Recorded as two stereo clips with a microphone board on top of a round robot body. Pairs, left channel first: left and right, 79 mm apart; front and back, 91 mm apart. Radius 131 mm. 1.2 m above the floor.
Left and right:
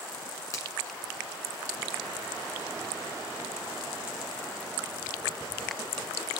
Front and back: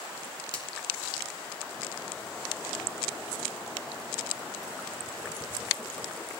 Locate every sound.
0.5 s a finger snap: 40° left, 4 m